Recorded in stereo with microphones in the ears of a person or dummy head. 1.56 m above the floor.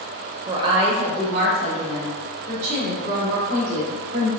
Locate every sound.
0.5 s a woman speaking: 25° right (ahead or behind), 1.1 m; by 4.3 s 50° right (ahead or behind), 3.5 m